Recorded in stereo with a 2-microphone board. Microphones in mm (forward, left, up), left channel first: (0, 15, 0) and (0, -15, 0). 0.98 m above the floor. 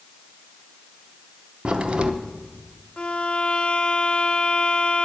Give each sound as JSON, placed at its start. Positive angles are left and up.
{"t": 1.6, "sound": "a crack", "side_deg": -40, "distance_m": 0.8}
{"t": 3.0, "sound": "a violin", "side_deg": 40, "distance_m": 0.7}